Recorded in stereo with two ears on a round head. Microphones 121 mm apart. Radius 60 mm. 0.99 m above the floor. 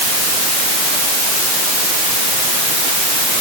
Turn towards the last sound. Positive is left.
No sound to turn to.